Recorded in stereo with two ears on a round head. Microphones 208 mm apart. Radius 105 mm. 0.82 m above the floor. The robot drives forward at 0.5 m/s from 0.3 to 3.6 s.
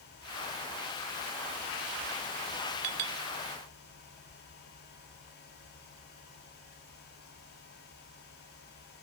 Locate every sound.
2.8 s a clink: 65° right (ahead or behind), 1.2 m; by 3.2 s 75° right (ahead or behind), 1.1 m